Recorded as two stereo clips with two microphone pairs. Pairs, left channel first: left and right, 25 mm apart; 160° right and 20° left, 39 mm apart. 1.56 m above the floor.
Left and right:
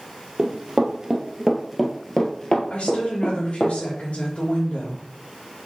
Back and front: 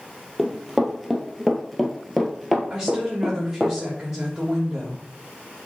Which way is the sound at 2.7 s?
90° left.